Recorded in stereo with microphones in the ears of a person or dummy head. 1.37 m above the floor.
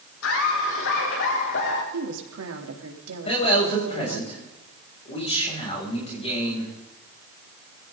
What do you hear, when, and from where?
0.2 s laughter: 75° left (ahead or behind), 4 m; by 1.8 s 60° left (ahead or behind), 3.5 m
1.9 s a woman speaking: 85° right, 3.5 m
3.2 s a man speaking: 30° left (ahead or behind), 7.5 m